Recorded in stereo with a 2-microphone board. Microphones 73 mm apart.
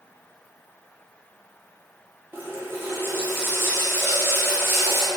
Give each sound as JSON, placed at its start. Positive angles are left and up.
{"t": 2.3, "sound": "a running tap", "side_deg": -30, "distance_m": 0.6}